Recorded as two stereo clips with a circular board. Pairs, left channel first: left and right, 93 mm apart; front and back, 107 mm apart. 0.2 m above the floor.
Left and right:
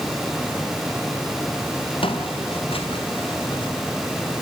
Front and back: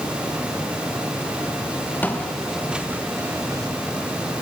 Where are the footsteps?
75° left, 2.5 m; by 3.7 s 125° left, 3 m.